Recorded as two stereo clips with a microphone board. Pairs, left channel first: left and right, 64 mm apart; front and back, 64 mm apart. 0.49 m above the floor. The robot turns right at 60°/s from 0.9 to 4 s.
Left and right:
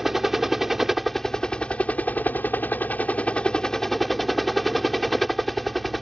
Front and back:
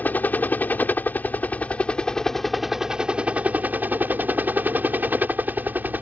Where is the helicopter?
5° right; by 6.0 s straight behind.